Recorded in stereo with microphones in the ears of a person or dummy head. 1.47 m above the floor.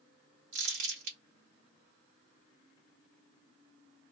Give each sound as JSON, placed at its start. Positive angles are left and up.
{"t": 0.5, "sound": "crumpling", "side_deg": -60, "distance_m": 1.0}